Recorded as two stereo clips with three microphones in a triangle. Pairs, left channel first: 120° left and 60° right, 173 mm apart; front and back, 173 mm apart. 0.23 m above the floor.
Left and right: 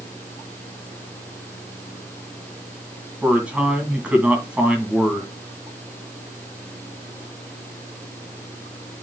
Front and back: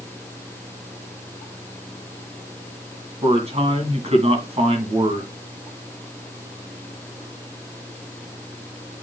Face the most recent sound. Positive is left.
turn(degrees=-140)